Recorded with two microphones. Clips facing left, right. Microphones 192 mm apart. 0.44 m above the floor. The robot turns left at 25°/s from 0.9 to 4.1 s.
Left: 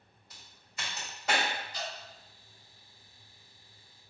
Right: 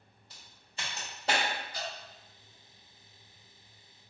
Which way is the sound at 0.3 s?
30° right (ahead or behind).